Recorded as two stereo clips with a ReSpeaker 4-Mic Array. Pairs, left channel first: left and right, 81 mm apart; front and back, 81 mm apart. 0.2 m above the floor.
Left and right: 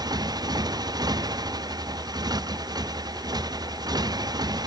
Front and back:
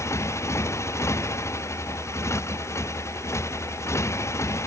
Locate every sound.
0.0 s a motorcycle: 55° right